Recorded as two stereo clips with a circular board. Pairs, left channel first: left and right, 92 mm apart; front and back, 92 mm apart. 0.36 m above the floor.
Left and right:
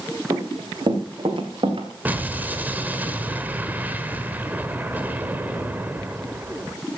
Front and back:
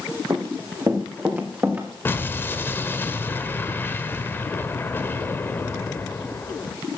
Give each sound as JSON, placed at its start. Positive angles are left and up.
{"t": 0.3, "sound": "running footsteps", "azimuth_deg": -135, "distance_m": 2.5}
{"t": 2.0, "sound": "an explosion", "azimuth_deg": -40, "distance_m": 1.4}